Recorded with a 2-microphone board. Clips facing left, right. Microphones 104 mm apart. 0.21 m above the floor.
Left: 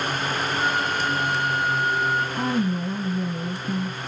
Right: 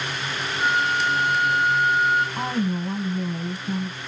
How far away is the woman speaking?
About 2.0 m.